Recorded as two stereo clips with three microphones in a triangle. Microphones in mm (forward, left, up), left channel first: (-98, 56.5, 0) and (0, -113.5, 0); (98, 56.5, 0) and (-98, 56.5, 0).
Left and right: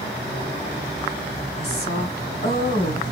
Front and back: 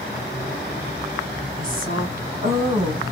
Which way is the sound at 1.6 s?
145° left.